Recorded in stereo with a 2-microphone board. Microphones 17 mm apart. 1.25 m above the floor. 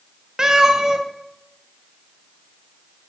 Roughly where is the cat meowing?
Right.